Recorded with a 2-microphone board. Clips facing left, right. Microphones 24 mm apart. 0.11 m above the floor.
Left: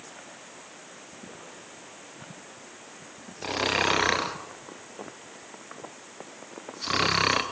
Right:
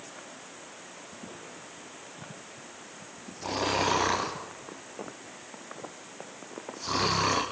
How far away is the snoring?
About 2 m.